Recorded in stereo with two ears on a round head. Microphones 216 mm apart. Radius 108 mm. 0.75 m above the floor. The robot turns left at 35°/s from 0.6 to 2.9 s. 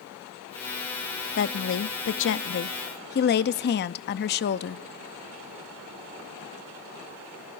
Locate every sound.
1.4 s a woman speaking: 110° left, 0.7 m; by 4.8 s 55° left, 0.7 m